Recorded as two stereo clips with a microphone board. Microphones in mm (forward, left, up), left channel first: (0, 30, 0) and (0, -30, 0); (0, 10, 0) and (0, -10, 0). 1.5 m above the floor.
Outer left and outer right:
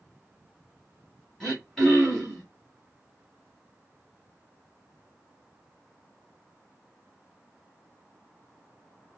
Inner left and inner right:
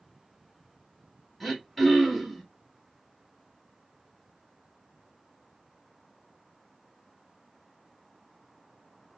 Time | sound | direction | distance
1.4 | throat clearing | 10° left (ahead or behind) | 1.4 m